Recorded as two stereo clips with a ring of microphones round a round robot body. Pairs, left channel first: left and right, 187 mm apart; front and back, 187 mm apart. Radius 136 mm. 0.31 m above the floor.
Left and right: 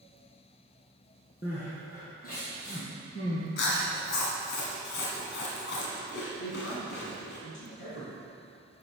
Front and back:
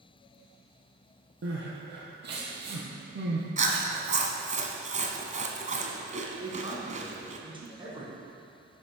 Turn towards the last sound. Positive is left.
turn(degrees=115)